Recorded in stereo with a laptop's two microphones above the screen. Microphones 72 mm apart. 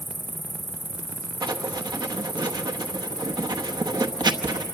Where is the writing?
75° right (ahead or behind), 0.9 m.